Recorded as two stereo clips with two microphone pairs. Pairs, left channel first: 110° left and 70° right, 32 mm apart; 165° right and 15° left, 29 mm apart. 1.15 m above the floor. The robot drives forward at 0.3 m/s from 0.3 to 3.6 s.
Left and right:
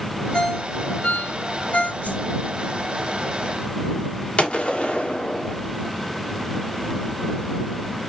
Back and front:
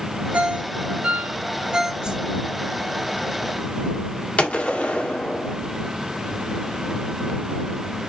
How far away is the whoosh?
About 0.9 m.